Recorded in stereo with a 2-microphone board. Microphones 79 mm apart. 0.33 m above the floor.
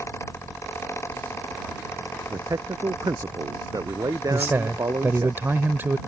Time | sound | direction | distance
2.3 | a man speaking | 50° right (ahead or behind) | ?
4.3 | a man speaking | 30° right (ahead or behind) | ?